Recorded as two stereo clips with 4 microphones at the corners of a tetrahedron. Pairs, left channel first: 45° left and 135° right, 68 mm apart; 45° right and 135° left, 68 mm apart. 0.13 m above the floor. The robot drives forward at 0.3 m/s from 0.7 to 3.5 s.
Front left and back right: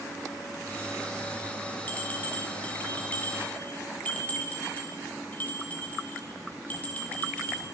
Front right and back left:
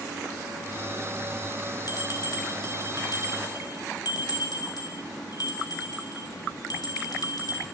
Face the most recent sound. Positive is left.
turn(degrees=-25)